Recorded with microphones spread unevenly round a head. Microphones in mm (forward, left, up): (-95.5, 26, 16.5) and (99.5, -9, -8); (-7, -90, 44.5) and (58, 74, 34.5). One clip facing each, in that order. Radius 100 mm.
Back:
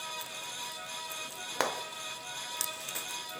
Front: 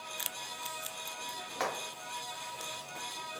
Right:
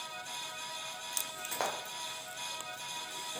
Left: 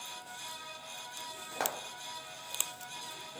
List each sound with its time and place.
1.6 s frying: 155° left, 0.6 m